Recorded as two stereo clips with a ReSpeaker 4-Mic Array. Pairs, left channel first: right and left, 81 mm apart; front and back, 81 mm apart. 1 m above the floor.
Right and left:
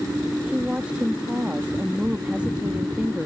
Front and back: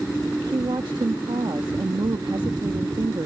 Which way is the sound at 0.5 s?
165° left.